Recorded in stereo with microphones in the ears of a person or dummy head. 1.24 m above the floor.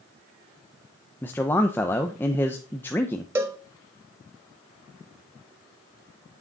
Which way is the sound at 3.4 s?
15° right (ahead or behind).